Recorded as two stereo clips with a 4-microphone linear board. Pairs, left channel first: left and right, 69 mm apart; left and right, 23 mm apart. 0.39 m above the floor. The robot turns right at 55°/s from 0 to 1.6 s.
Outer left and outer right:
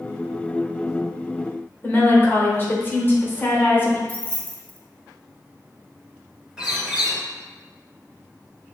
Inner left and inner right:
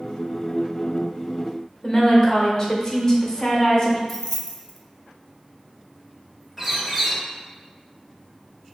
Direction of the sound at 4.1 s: 20° left (ahead or behind).